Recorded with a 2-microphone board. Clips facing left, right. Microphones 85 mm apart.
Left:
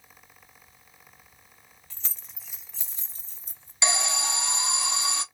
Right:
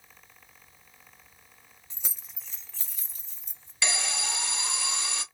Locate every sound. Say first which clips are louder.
1.9 s keys jangling: right 1 dB; 20° right (ahead or behind), 0.7 m; by 3.7 s 45° left (ahead or behind), 1.1 m
3.8 s an alarm: left 4 dB; 20° left (ahead or behind), 1.2 m